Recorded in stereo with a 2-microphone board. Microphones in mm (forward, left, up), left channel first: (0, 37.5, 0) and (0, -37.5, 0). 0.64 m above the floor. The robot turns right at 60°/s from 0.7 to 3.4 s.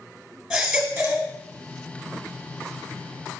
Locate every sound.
0.5 s a baby crying: 175° right, 1.8 m; by 1.3 s 140° right, 1.8 m